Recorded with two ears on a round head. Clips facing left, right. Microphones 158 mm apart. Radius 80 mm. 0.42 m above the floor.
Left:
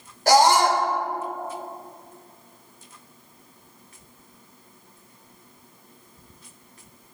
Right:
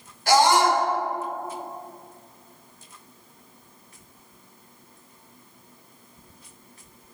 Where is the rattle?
I don't hear a rattle.